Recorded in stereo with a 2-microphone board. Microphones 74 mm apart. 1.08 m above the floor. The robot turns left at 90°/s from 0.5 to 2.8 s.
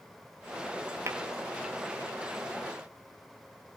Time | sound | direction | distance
1.1 | tapping | 45° right (ahead or behind) | 1.9 m